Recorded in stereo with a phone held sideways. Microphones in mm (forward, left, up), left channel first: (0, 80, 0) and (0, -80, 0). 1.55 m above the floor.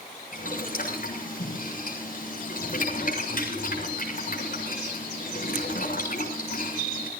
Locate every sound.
0.3 s boiling: 60° left (ahead or behind), 7.5 m